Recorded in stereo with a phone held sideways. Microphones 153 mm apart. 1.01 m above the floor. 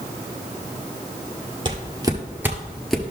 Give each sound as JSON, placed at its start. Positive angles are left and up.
{"t": 1.6, "sound": "footsteps", "side_deg": -30, "distance_m": 1.2}